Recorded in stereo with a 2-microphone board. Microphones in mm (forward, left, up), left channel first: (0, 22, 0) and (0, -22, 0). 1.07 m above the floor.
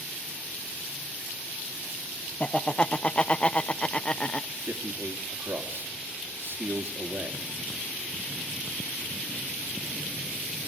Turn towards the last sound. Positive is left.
turn(degrees=-65)  # may be behind; listen again after turning